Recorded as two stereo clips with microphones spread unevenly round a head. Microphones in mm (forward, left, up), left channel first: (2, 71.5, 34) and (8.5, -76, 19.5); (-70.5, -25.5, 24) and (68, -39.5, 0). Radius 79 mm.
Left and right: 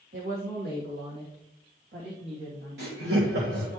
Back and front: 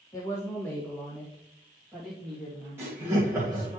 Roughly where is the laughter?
Right.